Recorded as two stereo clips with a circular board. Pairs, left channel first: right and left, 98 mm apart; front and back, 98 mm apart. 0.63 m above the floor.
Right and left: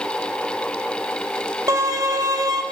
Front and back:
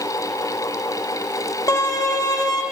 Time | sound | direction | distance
1.7 | a violin | 45° left | 1.1 m